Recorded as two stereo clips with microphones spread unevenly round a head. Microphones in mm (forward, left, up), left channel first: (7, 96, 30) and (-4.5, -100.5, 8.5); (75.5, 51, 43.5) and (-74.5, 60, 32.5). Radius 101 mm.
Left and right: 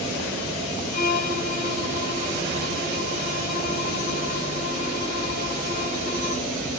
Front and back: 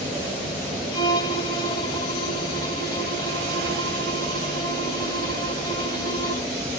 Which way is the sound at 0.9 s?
60° left.